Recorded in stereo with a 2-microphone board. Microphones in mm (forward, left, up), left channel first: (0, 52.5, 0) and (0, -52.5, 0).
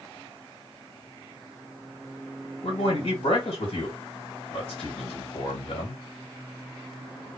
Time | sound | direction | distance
2.6 | a man speaking | 60° left (ahead or behind) | 1.5 m